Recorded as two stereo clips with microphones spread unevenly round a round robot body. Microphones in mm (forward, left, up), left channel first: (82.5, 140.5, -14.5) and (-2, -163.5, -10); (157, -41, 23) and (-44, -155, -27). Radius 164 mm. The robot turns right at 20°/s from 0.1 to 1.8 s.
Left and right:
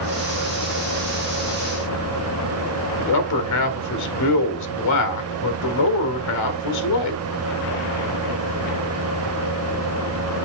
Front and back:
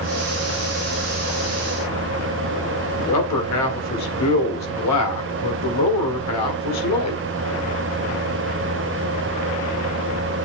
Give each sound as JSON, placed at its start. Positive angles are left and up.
{"t": 3.0, "sound": "a man speaking", "azimuth_deg": 50, "distance_m": 1.8}